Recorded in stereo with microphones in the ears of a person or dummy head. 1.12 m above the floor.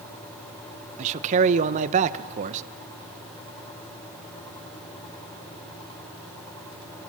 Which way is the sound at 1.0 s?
35° right (ahead or behind).